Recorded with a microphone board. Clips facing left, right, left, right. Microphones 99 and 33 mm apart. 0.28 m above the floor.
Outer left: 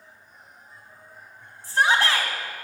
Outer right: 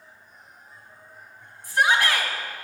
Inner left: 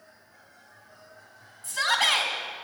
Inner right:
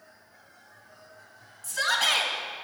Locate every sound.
1.6 s a shout: 35° left (ahead or behind), 2.5 m